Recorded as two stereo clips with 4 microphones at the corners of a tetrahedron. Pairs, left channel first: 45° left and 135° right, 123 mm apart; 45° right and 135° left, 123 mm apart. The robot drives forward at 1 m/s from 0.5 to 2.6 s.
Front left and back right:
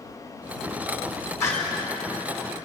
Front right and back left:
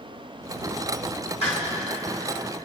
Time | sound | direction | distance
1.4 | a door slam | 25° right | 2.5 m